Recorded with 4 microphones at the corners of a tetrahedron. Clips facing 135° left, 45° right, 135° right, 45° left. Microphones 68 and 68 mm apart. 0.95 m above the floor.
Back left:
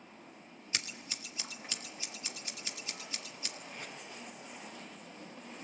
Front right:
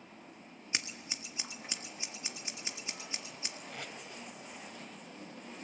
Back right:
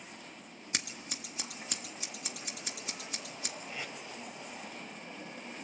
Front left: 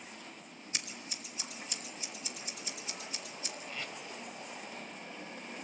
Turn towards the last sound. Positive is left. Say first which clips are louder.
# front right 3 dB, even
turn(degrees=-60)